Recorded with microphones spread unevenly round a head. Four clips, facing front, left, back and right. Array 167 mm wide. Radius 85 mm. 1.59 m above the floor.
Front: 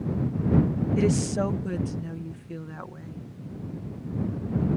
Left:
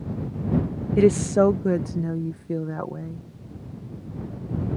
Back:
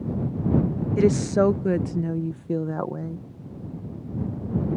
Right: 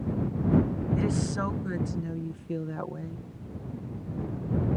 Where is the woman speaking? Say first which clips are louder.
Left 16 dB, back 6 dB; 115° left; by 3.2 s 170° left.